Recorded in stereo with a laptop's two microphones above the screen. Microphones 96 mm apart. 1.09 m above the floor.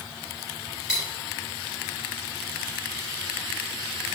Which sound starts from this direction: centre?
Cutlery clinking, at 0.9 s.